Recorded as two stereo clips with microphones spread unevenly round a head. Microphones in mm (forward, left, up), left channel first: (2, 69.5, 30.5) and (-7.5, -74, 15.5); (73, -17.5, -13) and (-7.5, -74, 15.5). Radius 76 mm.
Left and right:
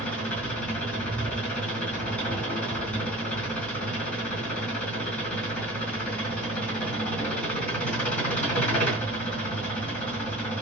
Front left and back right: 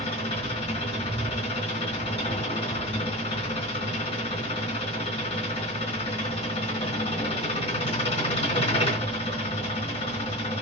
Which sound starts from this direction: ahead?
An engine running, at 0.0 s.